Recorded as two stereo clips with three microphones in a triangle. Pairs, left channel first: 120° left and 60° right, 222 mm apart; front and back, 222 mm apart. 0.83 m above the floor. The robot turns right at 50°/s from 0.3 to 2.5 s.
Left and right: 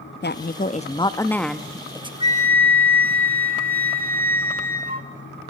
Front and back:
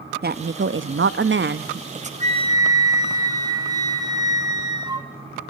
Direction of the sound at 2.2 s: 120° right.